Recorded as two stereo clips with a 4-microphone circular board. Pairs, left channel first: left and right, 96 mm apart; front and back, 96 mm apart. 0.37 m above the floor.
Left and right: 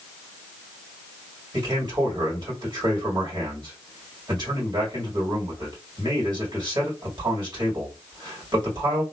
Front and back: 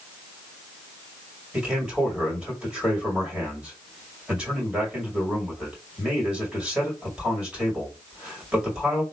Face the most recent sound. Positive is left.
turn(degrees=-105)